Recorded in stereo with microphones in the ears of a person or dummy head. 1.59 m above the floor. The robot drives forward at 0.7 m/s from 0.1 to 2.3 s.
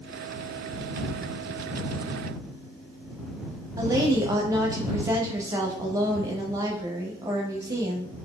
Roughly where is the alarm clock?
I don't hear an alarm clock.